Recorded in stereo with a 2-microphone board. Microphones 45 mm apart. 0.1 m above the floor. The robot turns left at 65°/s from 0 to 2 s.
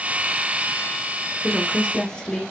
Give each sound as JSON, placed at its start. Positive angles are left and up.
{"t": 1.4, "sound": "a woman speaking", "side_deg": 5, "distance_m": 1.4}